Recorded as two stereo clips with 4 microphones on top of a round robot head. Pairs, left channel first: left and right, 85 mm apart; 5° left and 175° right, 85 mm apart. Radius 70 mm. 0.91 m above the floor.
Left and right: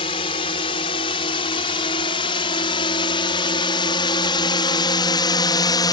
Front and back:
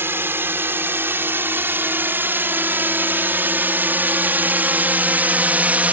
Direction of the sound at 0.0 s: 120° left.